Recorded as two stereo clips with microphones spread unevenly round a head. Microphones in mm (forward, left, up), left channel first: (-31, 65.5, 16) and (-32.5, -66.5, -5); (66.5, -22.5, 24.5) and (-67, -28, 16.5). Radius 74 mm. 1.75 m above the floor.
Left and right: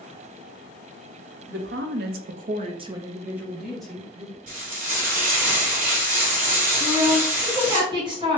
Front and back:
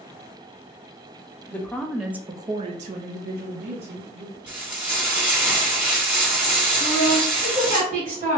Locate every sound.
1.5 s a woman speaking: 75° right, 0.8 m; by 4.4 s 165° left, 1.2 m
4.5 s frying: 95° right, 2.0 m
6.8 s a woman speaking: 150° right, 2 m